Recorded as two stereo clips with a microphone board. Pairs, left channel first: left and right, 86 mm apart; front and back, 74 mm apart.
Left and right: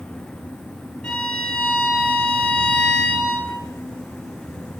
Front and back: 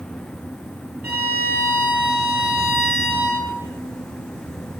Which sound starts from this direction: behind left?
A violin, at 1.0 s.